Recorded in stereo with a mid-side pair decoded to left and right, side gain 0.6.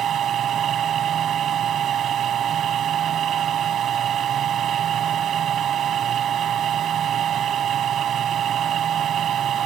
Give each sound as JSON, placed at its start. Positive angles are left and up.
{"t": 0.0, "sound": "a machine running", "azimuth_deg": -45}